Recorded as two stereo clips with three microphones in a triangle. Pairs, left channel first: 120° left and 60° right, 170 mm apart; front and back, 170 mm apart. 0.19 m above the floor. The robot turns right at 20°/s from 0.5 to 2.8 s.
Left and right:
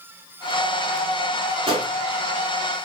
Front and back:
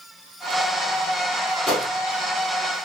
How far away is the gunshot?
About 1.7 m.